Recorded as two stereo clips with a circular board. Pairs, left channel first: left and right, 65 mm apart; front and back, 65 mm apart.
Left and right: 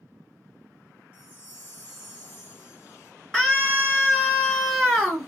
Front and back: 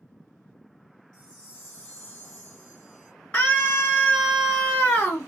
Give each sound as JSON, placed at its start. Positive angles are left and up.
{"t": 1.1, "sound": "a chime", "azimuth_deg": 65, "distance_m": 1.4}
{"t": 3.3, "sound": "a scream", "azimuth_deg": 10, "distance_m": 1.2}